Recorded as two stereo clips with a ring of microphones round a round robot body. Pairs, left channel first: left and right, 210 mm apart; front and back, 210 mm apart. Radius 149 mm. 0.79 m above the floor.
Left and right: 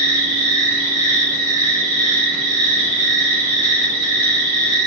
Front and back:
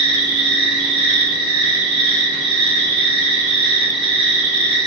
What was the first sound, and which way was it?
An insect, 150° right.